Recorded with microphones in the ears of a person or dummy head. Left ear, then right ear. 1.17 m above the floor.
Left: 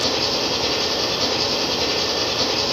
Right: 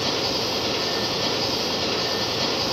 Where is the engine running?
85° left, 1.8 m.